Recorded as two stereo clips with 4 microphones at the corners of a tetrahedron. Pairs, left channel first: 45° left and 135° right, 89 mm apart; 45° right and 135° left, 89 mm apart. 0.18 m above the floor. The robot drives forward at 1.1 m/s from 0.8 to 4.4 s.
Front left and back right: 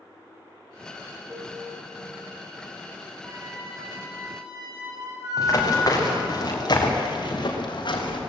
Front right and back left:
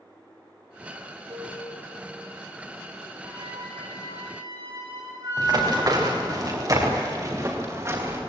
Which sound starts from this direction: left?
Running footsteps, at 5.4 s.